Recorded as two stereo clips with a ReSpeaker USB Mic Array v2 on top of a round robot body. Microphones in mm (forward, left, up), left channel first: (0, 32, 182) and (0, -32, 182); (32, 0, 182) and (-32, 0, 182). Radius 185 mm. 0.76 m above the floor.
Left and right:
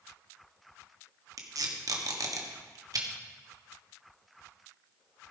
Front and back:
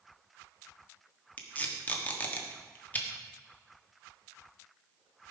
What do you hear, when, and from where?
1.4 s tape being pulled: 70° right, 1.5 m